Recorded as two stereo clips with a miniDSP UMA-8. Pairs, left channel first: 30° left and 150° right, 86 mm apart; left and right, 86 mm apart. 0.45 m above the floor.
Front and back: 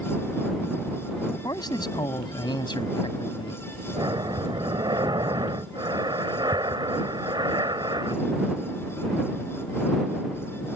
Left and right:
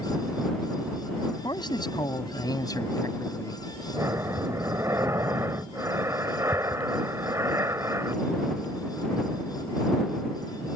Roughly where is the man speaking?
Ahead left.